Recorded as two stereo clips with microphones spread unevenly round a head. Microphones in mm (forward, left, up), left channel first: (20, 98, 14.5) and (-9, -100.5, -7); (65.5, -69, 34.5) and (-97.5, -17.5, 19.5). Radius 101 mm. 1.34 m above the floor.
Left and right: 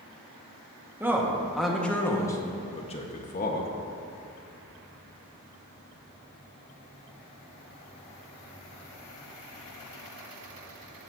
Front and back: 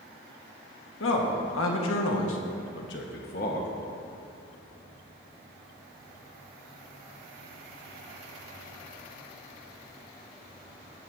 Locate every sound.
1.0 s a man speaking: 20° right, 1.8 m; by 3.7 s 35° left, 1.5 m